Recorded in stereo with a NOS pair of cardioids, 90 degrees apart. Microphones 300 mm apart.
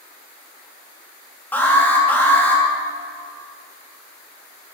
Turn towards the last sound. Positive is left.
turn(degrees=5)